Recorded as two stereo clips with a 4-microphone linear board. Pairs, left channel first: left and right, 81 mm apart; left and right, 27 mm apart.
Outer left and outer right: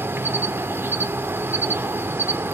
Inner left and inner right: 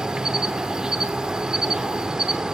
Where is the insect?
30° right (ahead or behind), 0.7 m.